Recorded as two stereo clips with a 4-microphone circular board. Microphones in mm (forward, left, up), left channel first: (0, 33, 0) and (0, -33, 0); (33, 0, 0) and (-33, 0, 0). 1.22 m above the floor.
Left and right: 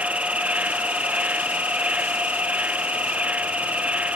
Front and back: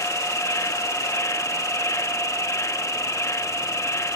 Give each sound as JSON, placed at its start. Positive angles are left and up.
{"t": 0.0, "sound": "an insect", "azimuth_deg": -25}